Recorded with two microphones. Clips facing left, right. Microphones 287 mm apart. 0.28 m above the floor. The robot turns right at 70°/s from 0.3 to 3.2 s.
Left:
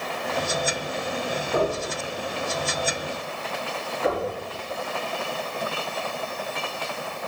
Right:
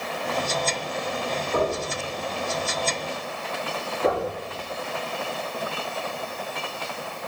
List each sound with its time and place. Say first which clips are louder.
1.5 s knocking: left 1 dB; 80° left, 6 m; by 1.8 s 65° left (ahead or behind), 6 m
4.0 s knocking: right 1 dB; 45° right (ahead or behind), 5.5 m